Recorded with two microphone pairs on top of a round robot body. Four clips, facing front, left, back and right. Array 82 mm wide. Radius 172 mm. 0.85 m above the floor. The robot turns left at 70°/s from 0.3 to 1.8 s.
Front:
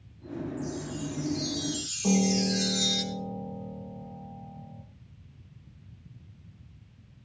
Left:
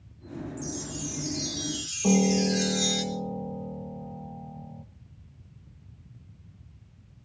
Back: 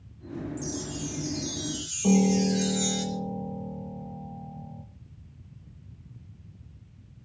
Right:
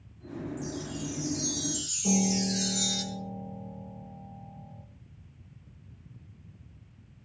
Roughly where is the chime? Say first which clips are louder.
Even, even; behind.